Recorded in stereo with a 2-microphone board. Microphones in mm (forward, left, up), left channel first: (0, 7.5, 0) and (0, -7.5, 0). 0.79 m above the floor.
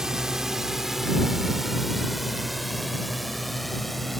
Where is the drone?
35° right (ahead or behind); by 4.2 s 5° left (ahead or behind).